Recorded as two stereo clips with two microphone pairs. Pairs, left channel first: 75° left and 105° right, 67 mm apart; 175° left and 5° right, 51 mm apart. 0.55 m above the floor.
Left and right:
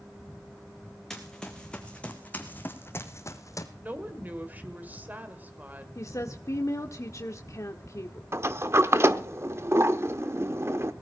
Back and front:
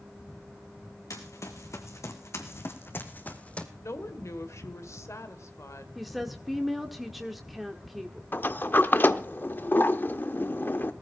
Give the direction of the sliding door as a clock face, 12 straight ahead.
5 o'clock.